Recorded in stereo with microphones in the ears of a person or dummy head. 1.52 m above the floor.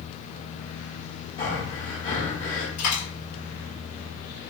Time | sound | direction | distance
1.4 | breathing | 45° left (ahead or behind) | 2.0 m
2.8 | a dropped coin | 45° left (ahead or behind) | 1.8 m